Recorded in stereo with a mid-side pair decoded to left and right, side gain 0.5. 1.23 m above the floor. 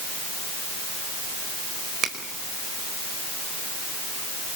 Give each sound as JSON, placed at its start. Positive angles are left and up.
{"t": 2.0, "sound": "a finger snap", "azimuth_deg": -50, "distance_m": 4.0}